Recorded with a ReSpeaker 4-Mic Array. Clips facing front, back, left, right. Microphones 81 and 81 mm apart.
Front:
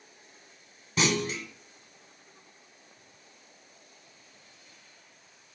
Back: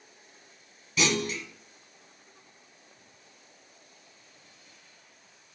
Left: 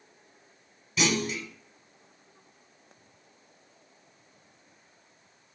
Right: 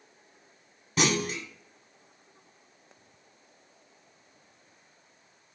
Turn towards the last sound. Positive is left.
turn(degrees=-50)